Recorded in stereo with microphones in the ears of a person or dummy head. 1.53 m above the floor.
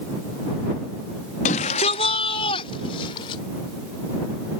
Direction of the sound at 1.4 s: 40° left (ahead or behind).